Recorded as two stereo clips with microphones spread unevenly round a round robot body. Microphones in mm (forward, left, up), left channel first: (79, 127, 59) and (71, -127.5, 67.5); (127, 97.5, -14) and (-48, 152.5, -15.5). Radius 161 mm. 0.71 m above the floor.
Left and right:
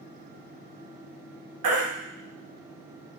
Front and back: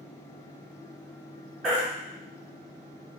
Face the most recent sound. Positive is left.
turn(degrees=-110)